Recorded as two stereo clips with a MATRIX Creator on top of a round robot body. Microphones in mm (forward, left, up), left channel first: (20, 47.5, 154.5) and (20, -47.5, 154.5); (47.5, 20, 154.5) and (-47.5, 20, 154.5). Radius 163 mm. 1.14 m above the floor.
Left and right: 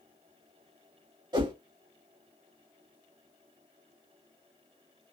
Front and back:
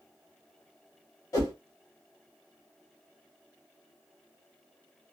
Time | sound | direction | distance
1.3 | a whoosh | 55° right | 2.0 m